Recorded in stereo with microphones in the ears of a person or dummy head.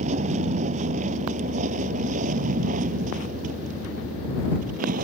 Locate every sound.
0.0 s a vehicle: 40° right (ahead or behind); by 5.0 s 50° right (ahead or behind)